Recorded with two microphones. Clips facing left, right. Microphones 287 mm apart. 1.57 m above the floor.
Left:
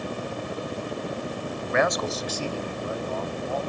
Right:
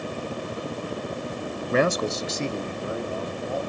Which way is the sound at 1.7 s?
40° right (ahead or behind).